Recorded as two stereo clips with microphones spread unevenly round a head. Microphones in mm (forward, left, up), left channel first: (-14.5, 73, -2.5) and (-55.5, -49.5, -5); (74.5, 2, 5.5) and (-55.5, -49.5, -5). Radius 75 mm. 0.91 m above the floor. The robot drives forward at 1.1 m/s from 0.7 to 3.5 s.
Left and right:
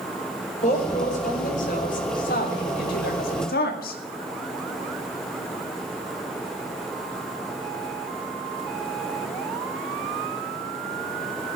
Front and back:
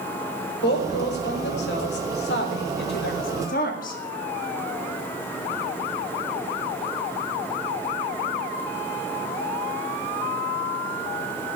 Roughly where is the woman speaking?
Ahead left.